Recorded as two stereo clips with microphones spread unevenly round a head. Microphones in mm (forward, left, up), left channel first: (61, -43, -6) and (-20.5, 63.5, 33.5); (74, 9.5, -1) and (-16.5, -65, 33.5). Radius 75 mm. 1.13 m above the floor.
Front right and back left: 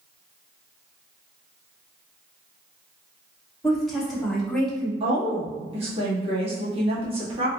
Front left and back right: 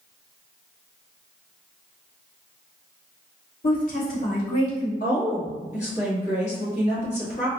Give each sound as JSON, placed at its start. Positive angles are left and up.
{"t": 3.6, "sound": "a woman speaking", "azimuth_deg": 35, "distance_m": 1.4}
{"t": 5.0, "sound": "a woman speaking", "azimuth_deg": 80, "distance_m": 1.7}